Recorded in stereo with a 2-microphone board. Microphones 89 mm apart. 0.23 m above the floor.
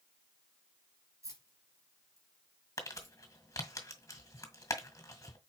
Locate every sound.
1.2 s keys jangling: 35° right (ahead or behind), 3 m
2.8 s crumpling: 35° left (ahead or behind), 1.8 m